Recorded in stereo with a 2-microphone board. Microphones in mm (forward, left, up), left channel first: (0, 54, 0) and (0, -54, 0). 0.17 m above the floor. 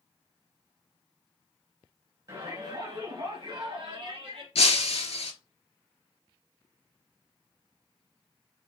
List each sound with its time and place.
2.3 s a shout: 45° right (ahead or behind), 1.7 m; by 4.5 s 65° right (ahead or behind), 3.5 m
4.5 s breaking glass: 75° left (ahead or behind), 0.7 m